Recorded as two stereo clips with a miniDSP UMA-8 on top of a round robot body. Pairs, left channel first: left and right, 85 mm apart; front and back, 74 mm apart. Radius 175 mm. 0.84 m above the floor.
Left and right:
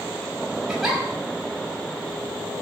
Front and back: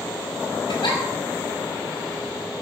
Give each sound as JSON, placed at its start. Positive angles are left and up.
{"t": 0.7, "sound": "a giggle", "azimuth_deg": -5, "distance_m": 6.0}